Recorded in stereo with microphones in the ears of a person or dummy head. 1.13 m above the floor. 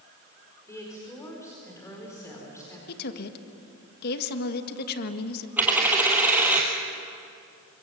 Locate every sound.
0.7 s a woman speaking: 15° left (ahead or behind), 4.5 m
2.9 s a woman speaking: 55° left (ahead or behind), 1.7 m
5.6 s a dropped coin: 10° right (ahead or behind), 2.5 m